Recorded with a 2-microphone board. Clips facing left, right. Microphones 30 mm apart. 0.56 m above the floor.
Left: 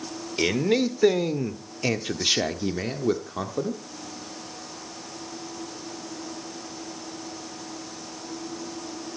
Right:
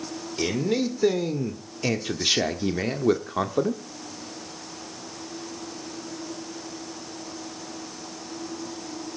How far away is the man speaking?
About 1.8 m.